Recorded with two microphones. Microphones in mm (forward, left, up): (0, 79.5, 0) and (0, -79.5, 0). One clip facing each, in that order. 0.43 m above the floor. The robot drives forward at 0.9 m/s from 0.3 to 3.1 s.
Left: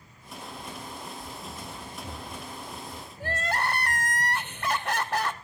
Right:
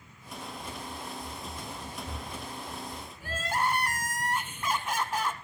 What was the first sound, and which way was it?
Running footsteps, 70° left (ahead or behind).